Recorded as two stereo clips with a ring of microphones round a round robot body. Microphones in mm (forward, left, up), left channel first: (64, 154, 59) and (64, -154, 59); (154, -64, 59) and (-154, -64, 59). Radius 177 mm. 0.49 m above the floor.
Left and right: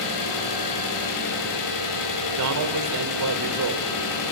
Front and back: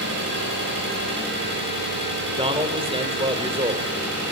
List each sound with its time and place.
0.0 s an engine running: 120° left, 9 m
2.4 s a man speaking: 110° right, 2.5 m